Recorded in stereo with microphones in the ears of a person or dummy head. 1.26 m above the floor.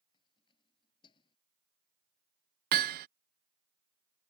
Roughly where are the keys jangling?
Left.